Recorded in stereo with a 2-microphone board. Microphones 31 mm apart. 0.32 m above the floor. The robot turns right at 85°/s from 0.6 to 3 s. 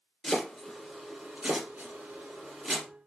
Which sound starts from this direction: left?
Chopping, at 0.2 s.